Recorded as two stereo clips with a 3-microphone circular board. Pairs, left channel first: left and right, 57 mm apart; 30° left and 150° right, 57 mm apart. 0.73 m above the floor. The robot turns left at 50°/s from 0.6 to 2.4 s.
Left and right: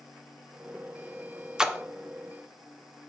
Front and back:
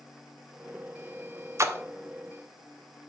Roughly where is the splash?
Behind.